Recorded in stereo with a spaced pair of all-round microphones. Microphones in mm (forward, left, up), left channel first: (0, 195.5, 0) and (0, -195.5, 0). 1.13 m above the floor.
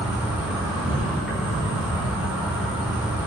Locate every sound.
0.0 s an insect: 5° right (ahead or behind), 3.5 m